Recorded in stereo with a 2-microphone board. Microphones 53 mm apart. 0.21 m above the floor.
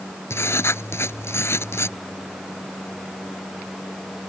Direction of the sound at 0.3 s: 50° left (ahead or behind).